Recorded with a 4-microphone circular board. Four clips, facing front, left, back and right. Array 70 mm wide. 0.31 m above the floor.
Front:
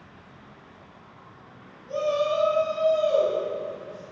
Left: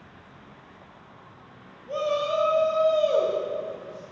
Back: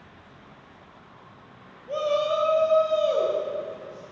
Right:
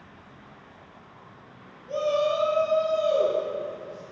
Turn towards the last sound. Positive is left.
turn(degrees=110)